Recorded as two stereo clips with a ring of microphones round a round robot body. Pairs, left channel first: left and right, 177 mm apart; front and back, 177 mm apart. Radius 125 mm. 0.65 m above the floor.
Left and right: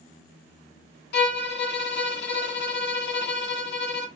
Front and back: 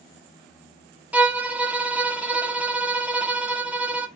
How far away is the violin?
About 0.9 m.